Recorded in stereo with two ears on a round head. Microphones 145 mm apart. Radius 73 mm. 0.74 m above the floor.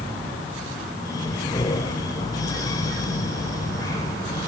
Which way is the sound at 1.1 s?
25° left (ahead or behind).